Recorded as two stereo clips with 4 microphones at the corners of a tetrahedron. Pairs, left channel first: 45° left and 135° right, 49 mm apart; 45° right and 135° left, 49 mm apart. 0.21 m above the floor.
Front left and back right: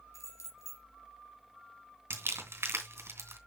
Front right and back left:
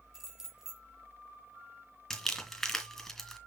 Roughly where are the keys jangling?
Ahead left.